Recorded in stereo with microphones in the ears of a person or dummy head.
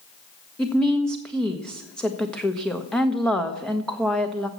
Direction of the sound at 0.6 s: 10° left (ahead or behind).